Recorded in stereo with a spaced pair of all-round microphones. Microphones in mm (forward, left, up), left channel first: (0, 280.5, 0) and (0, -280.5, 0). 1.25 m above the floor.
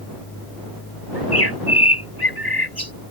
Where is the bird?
40° left (ahead or behind).